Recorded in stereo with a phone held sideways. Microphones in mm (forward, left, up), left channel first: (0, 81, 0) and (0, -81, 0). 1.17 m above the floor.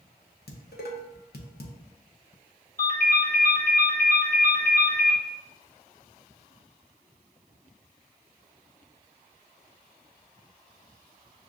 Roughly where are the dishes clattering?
Left.